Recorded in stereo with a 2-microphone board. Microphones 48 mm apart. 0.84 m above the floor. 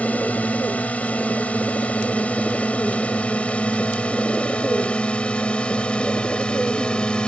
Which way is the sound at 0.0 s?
30° left (ahead or behind).